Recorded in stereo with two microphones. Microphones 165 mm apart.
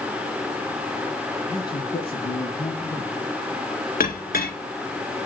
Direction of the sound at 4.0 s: 60° left (ahead or behind).